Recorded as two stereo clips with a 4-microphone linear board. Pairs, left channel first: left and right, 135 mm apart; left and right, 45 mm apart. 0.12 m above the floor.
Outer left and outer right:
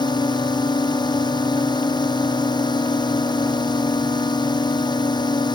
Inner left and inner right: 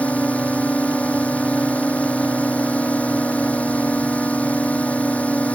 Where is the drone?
30° left (ahead or behind).